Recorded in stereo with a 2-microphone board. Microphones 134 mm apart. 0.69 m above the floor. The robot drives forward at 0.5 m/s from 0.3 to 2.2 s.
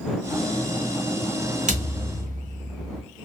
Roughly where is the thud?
Right.